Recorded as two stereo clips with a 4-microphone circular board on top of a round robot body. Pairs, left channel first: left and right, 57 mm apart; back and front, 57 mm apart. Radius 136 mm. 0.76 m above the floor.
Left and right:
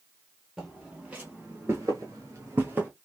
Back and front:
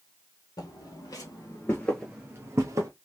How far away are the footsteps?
About 1.5 m.